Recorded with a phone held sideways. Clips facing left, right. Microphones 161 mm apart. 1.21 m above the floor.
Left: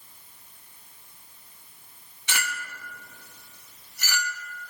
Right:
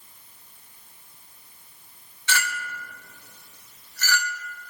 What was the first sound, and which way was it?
A clink, 15° left (ahead or behind).